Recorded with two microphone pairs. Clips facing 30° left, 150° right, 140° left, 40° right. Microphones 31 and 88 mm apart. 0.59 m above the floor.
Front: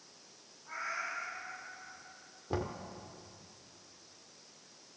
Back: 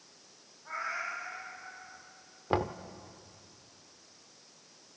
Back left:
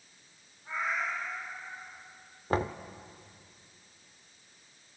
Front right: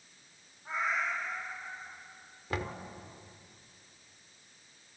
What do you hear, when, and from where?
0.7 s a cat meowing: 110° right, 7.5 m; by 2.0 s 95° right, 8.5 m
2.5 s knocking: 175° right, 1.0 m